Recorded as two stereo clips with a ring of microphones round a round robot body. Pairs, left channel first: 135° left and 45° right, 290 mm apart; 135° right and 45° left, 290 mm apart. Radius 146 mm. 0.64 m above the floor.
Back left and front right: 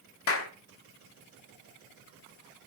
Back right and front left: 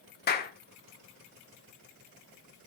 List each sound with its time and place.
0.3 s a clap: 170° left, 1.5 m